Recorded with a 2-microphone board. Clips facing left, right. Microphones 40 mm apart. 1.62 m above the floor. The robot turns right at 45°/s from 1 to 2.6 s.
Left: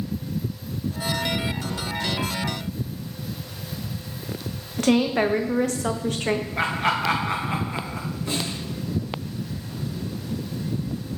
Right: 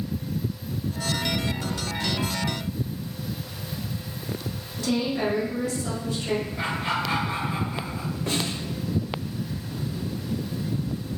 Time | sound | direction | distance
4.8 | a woman speaking | 65° left (ahead or behind) | 0.9 m
6.6 | laughter | 85° left | 1.6 m
8.3 | a snare drum | 65° right (ahead or behind) | 4 m